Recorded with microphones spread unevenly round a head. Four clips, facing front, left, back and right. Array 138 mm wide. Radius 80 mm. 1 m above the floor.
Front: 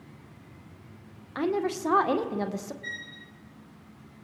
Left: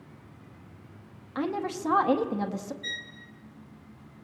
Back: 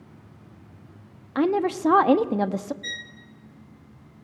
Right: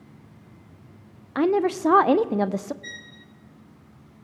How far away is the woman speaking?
About 0.8 m.